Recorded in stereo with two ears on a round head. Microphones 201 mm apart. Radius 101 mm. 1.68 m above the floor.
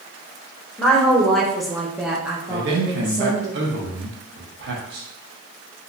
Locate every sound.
0.8 s a woman speaking: 5° left (ahead or behind), 1.1 m; by 3.5 s 5° right (ahead or behind), 1.3 m
2.5 s a man speaking: 50° right (ahead or behind), 0.9 m